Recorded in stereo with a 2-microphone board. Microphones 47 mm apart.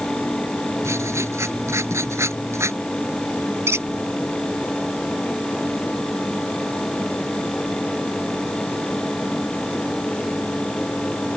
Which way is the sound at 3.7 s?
75° right (ahead or behind).